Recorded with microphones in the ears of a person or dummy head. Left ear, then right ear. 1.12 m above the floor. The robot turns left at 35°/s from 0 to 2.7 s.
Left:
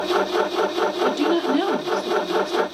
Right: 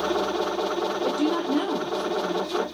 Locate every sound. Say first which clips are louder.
1.0 s a woman speaking: left 4 dB; 110° left, 1.0 m; by 2.6 s 50° left, 1.0 m